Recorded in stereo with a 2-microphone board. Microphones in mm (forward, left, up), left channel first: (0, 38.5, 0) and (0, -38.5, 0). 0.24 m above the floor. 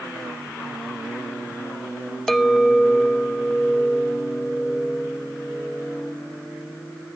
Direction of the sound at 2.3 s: 5° left (ahead or behind).